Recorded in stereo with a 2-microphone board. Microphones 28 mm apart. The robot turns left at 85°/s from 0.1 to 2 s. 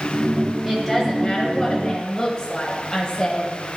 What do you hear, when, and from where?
0.7 s a woman speaking: 5° left (ahead or behind), 1.0 m; by 3.8 s 15° left (ahead or behind), 1.0 m